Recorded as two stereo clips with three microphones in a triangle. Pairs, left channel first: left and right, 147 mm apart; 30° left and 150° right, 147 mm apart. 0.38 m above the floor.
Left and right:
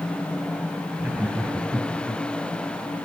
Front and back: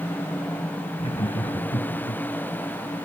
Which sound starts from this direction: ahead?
Laughter, at 1.0 s.